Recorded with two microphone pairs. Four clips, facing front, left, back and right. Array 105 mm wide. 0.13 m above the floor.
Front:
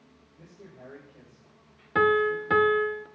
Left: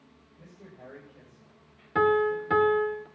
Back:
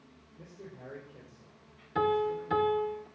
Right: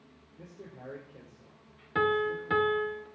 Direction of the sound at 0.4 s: 90° right.